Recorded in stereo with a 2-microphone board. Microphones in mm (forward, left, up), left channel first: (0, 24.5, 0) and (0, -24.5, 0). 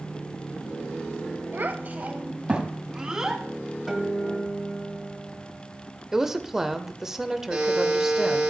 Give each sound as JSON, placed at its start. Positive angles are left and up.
{"t": 1.5, "sound": "a child speaking", "side_deg": -45, "distance_m": 1.1}
{"t": 3.9, "sound": "a guitar", "side_deg": -5, "distance_m": 1.4}
{"t": 6.1, "sound": "a woman speaking", "side_deg": -10, "distance_m": 0.8}
{"t": 7.5, "sound": "a buzzer", "side_deg": -15, "distance_m": 6.0}